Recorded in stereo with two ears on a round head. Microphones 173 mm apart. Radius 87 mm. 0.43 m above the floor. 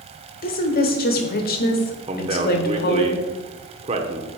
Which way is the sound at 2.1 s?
30° right (ahead or behind).